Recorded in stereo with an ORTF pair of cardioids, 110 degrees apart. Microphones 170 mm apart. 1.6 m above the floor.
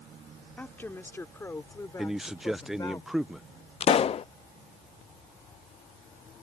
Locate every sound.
0.6 s a woman speaking: 10° left; by 3.0 s 20° left
2.0 s a man speaking: 5° right
3.8 s a pop: 35° left